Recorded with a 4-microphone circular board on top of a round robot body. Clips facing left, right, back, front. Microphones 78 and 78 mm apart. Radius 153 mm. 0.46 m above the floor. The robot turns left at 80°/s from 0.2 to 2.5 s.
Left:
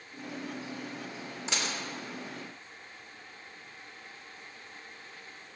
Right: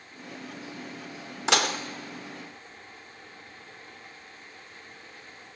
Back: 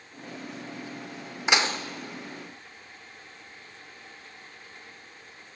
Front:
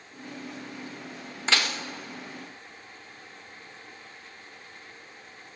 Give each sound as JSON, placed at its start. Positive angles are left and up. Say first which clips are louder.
{"t": 1.5, "sound": "dishes clattering", "louder": "right 10 dB, back 3 dB", "azimuth_deg": -105, "distance_m": 1.0}